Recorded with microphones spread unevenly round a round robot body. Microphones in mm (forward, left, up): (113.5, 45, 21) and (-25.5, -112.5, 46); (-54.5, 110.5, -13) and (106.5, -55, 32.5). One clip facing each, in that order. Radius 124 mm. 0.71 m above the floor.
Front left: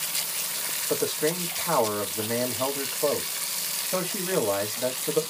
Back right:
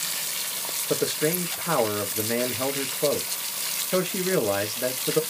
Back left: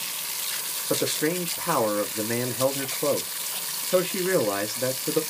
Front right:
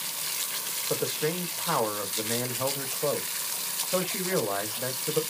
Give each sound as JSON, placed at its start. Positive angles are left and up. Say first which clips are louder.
{"t": 0.9, "sound": "a man speaking", "louder": "back right 1 dB, back left 4 dB", "azimuth_deg": 160, "distance_m": 1.0}